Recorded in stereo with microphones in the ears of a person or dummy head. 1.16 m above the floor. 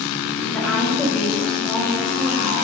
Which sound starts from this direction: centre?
A woman speaking, at 0.5 s.